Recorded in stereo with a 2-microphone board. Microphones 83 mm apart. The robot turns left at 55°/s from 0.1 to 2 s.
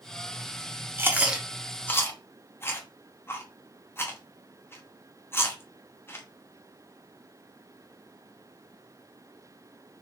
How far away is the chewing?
About 0.9 m.